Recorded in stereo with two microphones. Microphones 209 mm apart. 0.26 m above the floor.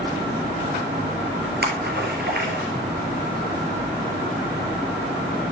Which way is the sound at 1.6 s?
55° right (ahead or behind).